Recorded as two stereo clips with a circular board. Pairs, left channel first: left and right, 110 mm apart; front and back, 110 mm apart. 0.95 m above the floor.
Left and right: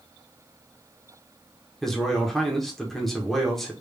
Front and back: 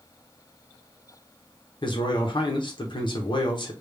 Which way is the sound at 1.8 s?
5° left.